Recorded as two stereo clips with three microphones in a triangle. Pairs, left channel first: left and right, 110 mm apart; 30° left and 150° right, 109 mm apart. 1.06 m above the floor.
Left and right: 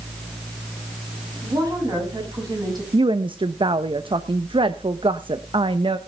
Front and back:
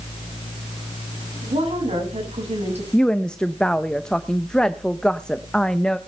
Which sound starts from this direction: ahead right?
A woman speaking, at 2.9 s.